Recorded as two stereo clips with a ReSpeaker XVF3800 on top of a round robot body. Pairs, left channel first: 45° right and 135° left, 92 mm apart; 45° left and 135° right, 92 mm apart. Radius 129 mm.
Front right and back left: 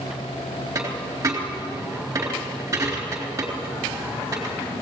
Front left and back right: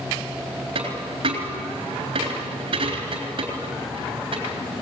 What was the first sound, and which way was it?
A dropped coin, 165° right.